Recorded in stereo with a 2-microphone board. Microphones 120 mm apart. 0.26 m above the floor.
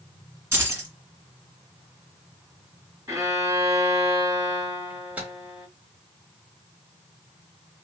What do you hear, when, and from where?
0.5 s keys jangling: 20° right (ahead or behind), 1.4 m
3.1 s a violin: 25° right (ahead or behind), 1.4 m
4.9 s a microwave: 15° right (ahead or behind), 1.2 m